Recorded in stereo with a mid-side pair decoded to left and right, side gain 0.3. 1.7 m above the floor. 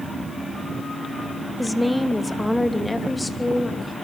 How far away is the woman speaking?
About 2.0 m.